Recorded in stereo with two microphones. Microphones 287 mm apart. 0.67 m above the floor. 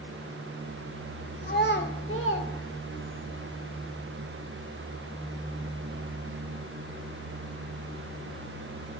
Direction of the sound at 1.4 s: 30° left (ahead or behind).